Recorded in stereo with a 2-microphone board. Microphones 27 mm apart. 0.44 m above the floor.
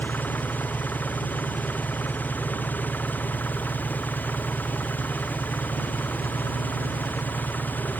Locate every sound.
0.0 s an engine running: 80° left